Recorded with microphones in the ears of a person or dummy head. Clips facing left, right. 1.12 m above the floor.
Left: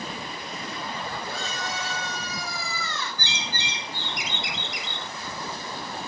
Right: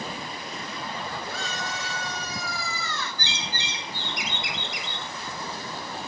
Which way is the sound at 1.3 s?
55° left (ahead or behind).